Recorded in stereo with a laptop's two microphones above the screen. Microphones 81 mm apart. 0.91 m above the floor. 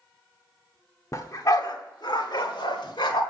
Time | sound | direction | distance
1.1 | a dog barking | 40° left (ahead or behind) | 0.9 m